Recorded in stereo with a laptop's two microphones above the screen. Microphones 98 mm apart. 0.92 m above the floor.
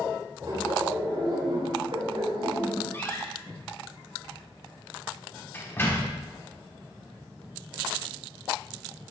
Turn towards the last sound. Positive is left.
turn(degrees=25)  # may be behind; listen again after turning